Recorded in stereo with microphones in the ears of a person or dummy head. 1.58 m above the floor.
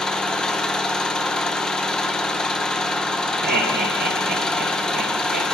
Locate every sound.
0.0 s an engine running: 5° left (ahead or behind), 0.8 m
3.4 s laughter: 45° right (ahead or behind), 2.5 m